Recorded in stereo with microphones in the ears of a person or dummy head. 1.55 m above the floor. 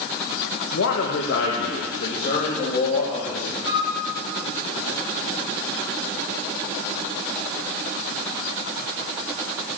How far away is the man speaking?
About 1.9 m.